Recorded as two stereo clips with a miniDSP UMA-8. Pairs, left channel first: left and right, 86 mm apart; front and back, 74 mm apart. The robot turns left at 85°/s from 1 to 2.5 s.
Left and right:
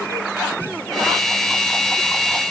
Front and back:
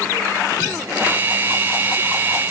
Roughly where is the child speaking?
I don't hear a child speaking.